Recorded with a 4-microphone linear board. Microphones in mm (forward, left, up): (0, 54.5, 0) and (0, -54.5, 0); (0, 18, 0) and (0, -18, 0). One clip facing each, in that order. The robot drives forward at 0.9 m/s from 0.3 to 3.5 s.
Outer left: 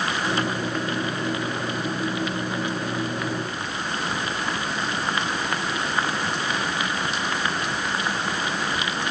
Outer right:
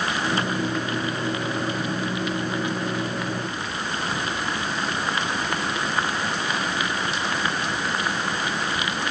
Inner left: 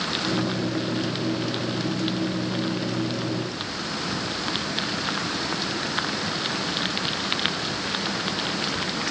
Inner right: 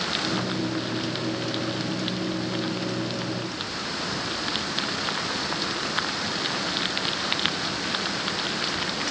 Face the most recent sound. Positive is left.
No sound to turn to.